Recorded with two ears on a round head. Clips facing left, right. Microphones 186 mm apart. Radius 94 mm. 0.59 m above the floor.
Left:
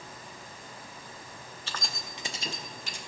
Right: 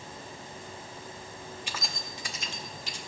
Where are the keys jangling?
15° right (ahead or behind), 0.6 m; by 3.0 s 50° left (ahead or behind), 1.0 m.